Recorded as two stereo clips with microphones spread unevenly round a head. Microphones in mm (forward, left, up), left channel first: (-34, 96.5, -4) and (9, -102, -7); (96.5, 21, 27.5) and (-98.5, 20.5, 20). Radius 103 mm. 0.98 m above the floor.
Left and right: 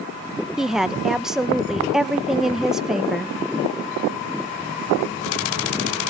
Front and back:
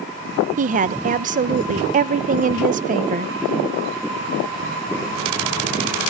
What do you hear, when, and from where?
0.6 s a woman speaking: 165° right, 0.6 m